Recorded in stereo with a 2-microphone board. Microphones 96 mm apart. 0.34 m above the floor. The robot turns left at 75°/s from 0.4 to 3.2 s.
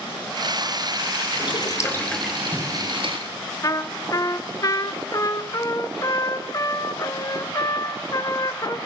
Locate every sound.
1.3 s boiling: 65° left, 3.5 m; by 3.2 s 70° right, 3.5 m
3.6 s a trumpet: 35° left (ahead or behind), 1.1 m